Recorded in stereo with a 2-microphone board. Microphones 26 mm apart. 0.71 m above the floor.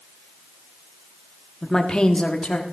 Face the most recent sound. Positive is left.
turn(degrees=55)  # may be behind; listen again after turning